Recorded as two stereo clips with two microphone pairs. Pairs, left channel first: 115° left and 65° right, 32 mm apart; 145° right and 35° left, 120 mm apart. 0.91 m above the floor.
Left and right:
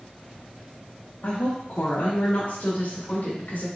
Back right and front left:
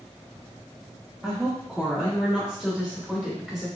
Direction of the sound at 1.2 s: 115° left.